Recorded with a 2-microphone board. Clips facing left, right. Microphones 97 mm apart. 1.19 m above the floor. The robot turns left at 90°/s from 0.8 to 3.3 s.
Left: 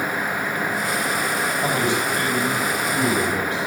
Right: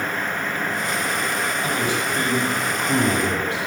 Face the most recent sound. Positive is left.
turn(degrees=-110)